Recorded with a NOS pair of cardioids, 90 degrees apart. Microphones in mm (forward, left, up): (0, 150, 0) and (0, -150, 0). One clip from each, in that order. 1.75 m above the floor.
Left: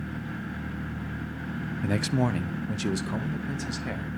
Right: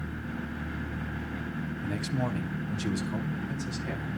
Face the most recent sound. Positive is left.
turn(degrees=35)